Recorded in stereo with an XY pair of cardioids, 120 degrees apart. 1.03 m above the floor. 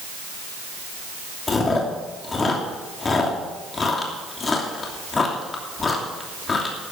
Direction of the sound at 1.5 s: 30° left.